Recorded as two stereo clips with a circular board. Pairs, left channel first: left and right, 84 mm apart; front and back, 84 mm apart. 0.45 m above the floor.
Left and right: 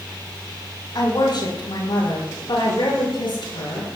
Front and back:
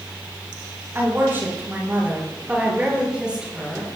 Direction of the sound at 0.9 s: 120° left.